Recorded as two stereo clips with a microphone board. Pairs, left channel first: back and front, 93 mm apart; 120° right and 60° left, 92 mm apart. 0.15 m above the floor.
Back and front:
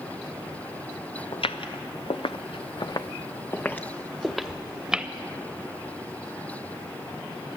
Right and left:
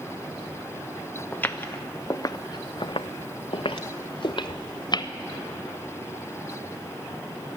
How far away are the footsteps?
About 1.0 m.